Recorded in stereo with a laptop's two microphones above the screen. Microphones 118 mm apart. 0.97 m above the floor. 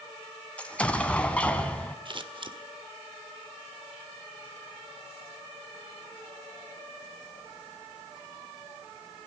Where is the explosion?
10° left (ahead or behind), 1.9 m.